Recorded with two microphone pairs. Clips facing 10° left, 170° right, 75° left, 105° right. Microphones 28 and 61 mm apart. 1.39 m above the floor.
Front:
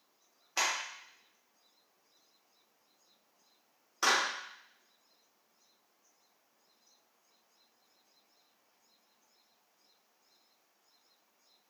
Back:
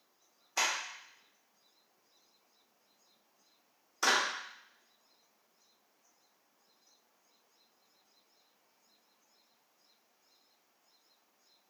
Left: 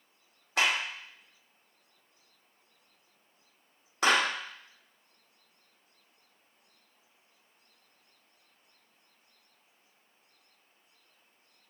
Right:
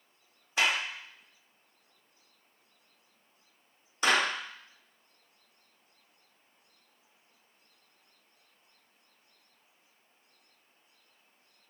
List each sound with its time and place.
0.6 s a clap: 80° left, 2.5 m